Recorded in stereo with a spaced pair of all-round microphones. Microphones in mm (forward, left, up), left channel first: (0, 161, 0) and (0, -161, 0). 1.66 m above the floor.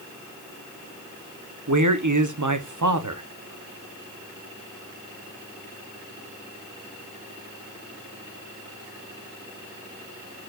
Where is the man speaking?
65° right (ahead or behind), 1.1 m.